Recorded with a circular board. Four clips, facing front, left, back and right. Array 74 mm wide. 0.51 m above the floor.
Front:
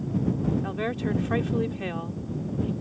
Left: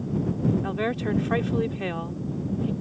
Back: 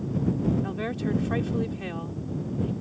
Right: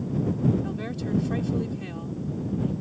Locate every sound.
0.6 s a woman speaking: 75° left